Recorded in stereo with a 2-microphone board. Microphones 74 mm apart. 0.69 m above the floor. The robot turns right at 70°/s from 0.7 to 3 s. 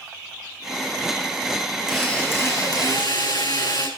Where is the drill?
5° right, 9.5 m; by 3.9 s 75° left, 9.5 m.